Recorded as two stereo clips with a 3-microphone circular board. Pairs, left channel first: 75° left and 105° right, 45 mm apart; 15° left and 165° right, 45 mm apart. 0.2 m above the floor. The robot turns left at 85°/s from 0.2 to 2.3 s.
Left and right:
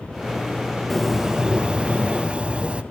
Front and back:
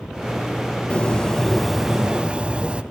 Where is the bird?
10° right, 0.6 m; by 2.8 s 130° right, 0.6 m.